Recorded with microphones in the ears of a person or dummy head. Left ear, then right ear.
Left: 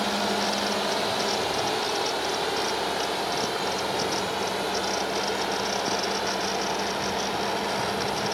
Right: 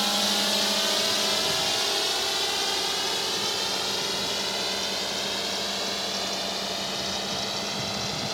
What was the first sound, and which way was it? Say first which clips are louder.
A drone: right 1 dB; 35° right (ahead or behind).